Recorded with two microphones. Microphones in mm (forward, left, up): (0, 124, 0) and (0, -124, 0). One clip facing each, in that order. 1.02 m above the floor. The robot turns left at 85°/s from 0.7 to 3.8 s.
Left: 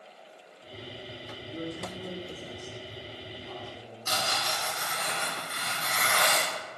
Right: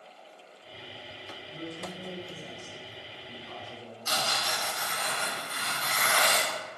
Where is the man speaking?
110° left, 1.6 m; by 4.1 s 90° right, 1.6 m.